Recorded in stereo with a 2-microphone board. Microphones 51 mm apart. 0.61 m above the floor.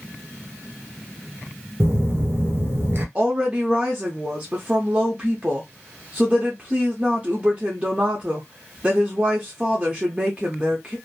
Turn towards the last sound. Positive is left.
turn(degrees=-30)  # may be behind; listen again after turning